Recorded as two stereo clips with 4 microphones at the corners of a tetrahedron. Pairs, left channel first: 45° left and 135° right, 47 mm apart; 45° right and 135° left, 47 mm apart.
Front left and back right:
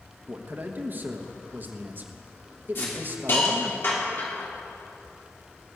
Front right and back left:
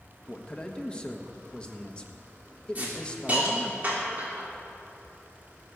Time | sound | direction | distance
0.3 | a man speaking | 110° right | 1.3 m
2.8 | a hiss | 80° left | 3 m